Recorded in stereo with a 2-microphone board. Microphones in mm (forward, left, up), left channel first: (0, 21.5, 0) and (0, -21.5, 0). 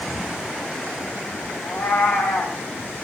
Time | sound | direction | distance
1.6 | a cat meowing | 80° left | 5.5 m